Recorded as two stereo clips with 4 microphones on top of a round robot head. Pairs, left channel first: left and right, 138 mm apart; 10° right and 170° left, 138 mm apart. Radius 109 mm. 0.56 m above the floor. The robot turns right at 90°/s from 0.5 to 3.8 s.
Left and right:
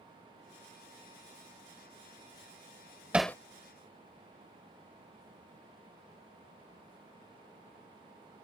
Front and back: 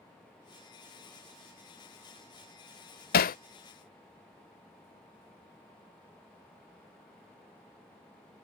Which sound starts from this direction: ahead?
Hammering, at 3.1 s.